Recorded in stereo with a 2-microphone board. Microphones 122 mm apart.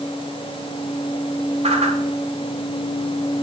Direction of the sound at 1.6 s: 60° right (ahead or behind).